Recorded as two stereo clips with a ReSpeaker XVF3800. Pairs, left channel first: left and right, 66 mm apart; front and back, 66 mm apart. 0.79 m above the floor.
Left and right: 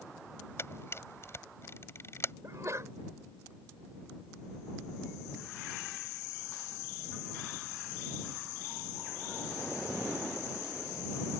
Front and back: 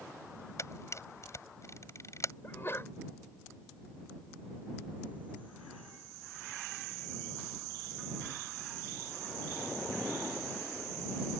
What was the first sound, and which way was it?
A camera shutter, 40° left.